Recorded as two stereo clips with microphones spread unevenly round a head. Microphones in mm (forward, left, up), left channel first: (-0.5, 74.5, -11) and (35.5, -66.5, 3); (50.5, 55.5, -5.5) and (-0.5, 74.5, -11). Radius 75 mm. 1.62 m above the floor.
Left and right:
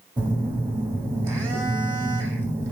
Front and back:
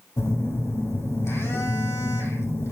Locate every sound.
0.2 s a phone buzzing: 20° right, 2 m